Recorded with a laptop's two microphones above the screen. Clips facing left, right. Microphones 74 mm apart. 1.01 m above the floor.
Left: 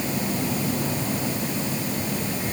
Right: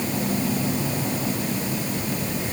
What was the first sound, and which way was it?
Only background noise.